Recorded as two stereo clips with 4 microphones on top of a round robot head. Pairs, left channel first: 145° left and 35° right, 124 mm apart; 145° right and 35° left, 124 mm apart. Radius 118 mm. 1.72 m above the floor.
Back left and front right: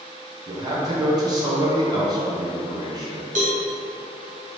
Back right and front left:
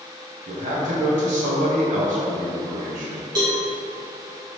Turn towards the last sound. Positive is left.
turn(degrees=-20)